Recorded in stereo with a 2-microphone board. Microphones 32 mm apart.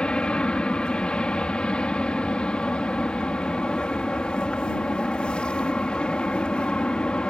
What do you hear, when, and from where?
0.0 s an aircraft: 35° left (ahead or behind)